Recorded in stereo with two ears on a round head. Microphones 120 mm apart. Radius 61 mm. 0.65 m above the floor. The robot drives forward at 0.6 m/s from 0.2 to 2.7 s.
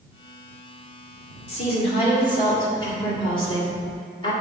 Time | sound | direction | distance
1.5 | a woman speaking | 50° left (ahead or behind) | 1.7 m